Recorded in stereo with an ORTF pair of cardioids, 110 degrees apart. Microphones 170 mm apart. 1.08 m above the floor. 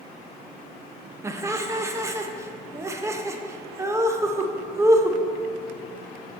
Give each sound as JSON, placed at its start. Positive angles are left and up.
{"t": 1.2, "sound": "laughter", "azimuth_deg": -15, "distance_m": 0.7}